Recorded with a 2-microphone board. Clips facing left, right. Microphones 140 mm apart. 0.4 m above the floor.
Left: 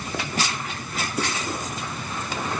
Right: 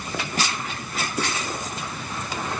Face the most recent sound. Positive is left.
No sound to turn to.